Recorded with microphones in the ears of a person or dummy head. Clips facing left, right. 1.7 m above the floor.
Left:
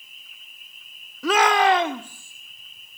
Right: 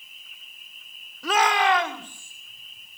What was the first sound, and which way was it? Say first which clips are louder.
A shout: left 4 dB; 65° left (ahead or behind).